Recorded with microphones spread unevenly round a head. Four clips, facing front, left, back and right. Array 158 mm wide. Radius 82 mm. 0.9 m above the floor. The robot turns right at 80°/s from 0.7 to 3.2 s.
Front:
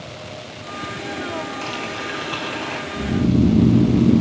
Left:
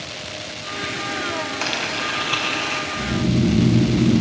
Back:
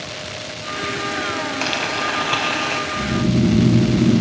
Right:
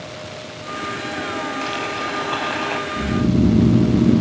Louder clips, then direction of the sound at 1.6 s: Right 2 dB, back 5 dB; 155° left.